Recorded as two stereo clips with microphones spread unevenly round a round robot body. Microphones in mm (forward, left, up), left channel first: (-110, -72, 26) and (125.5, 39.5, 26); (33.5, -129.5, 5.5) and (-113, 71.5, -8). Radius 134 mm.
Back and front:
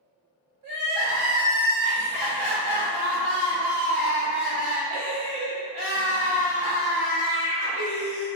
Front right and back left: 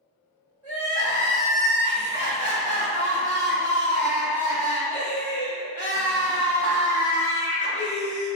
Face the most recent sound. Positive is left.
turn(degrees=10)